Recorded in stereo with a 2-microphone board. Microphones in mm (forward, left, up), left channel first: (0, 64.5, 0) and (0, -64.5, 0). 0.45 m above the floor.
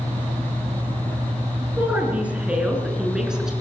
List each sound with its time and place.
1.8 s a woman speaking: 10° right (ahead or behind), 7 m; by 3.5 s 5° right (ahead or behind), 6.5 m